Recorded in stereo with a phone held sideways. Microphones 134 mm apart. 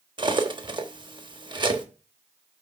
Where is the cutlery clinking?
40° right (ahead or behind), 1.1 m.